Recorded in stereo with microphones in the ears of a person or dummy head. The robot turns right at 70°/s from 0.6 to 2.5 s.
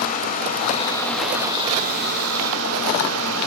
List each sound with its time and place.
0.0 s running water: 135° left, 1.3 m; by 3.5 s 90° right, 1.3 m